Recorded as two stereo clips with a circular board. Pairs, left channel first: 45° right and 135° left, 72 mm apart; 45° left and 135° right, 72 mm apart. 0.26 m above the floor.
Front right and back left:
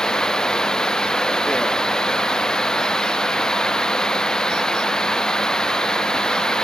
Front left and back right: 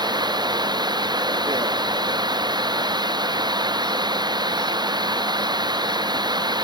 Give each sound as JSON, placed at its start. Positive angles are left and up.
{"t": 0.0, "sound": "running water", "azimuth_deg": -125}